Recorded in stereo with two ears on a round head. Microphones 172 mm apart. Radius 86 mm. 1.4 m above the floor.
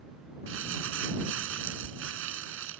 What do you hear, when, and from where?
0.5 s crumpling: 75° right (ahead or behind)